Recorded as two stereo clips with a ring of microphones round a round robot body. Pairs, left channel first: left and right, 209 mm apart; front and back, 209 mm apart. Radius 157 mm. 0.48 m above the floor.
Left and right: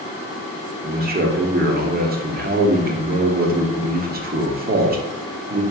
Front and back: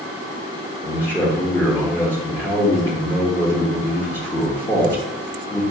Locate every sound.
0.8 s a man speaking: 75° right, 1.0 m